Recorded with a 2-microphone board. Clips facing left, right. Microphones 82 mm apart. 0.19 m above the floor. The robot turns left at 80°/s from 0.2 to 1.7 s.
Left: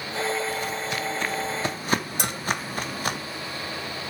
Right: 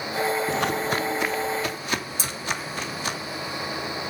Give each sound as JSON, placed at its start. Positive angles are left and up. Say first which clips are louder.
{"t": 0.5, "sound": "footsteps", "louder": "right 5 dB", "side_deg": -85, "distance_m": 1.1}
{"t": 2.2, "sound": "a bell", "louder": "left 3 dB", "side_deg": 65, "distance_m": 0.7}